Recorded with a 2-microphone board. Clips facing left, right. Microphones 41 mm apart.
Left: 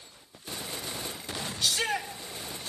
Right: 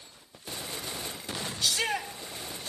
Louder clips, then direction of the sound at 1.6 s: Even; 50° left (ahead or behind).